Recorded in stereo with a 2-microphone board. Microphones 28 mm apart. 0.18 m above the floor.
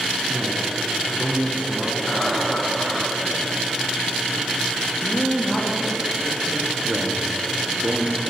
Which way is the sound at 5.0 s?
15° left (ahead or behind).